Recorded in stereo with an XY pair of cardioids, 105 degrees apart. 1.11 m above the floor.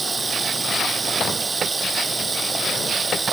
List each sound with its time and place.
0.0 s running water: 30° right